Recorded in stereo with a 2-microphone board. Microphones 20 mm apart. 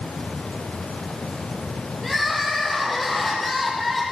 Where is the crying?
5° left (ahead or behind), 6 m.